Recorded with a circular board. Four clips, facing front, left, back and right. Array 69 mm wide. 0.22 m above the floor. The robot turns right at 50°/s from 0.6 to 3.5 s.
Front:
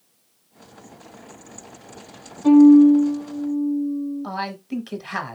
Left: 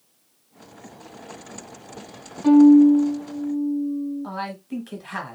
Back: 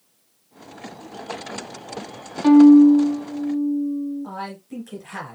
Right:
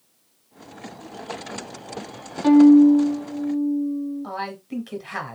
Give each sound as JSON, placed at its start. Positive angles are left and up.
{"t": 2.4, "sound": "a violin", "azimuth_deg": -160, "distance_m": 1.0}
{"t": 4.2, "sound": "a man speaking", "azimuth_deg": -5, "distance_m": 1.1}